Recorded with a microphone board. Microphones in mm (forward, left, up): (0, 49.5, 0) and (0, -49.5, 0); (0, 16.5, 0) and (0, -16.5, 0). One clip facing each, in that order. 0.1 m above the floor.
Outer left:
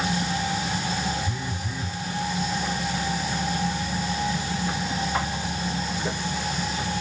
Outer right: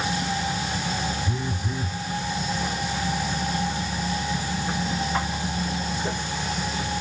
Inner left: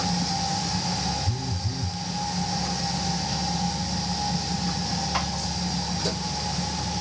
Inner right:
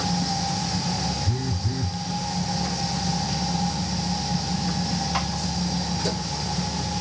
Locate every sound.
1.2 s a phone buzzing: 25° right (ahead or behind), 0.7 m